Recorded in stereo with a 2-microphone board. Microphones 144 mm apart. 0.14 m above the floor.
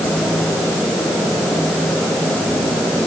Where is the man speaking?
No man speaking in this recording.